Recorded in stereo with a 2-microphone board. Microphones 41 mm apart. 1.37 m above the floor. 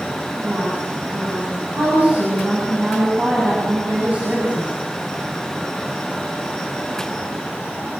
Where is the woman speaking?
40° right (ahead or behind), 9.5 m.